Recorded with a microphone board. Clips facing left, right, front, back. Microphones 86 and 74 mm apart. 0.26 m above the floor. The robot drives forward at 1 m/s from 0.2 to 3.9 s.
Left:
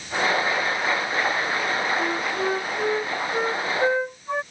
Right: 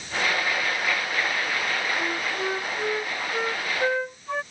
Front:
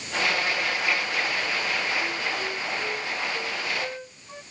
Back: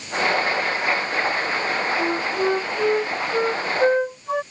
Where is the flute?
165° left.